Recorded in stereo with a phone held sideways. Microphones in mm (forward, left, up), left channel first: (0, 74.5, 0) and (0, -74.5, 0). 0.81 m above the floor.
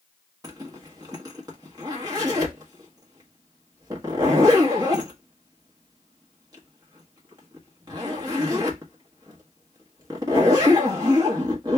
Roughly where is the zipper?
Right.